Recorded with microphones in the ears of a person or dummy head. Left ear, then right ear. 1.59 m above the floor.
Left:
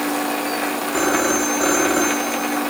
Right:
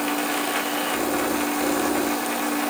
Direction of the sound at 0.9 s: 55° left (ahead or behind).